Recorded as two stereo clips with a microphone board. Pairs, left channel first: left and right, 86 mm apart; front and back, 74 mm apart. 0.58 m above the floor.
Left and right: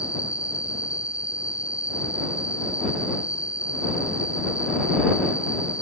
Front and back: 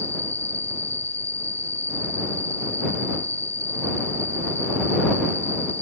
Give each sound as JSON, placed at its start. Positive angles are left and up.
{"t": 0.0, "sound": "an insect", "azimuth_deg": 135}